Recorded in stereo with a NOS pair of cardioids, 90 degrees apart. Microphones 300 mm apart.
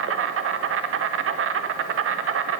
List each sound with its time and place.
0.0 s an insect: 50° right, 0.8 m